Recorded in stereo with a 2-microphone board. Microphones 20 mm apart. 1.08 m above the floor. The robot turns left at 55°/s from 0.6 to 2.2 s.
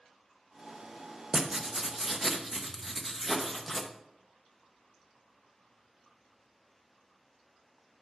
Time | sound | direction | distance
1.3 | writing | 135° right | 0.7 m